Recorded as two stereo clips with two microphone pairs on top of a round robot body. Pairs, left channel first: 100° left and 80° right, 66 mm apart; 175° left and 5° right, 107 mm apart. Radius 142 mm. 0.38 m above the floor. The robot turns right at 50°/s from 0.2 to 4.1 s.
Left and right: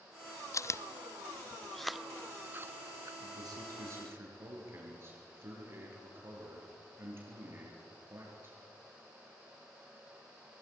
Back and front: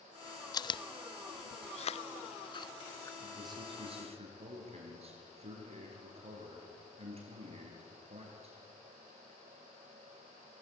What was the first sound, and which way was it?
Chewing, 115° left.